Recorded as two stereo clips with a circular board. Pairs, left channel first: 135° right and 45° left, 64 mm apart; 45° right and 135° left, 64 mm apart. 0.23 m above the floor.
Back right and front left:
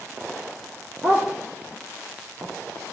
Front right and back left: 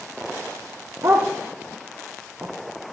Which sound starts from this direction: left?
A dog barking, at 1.0 s.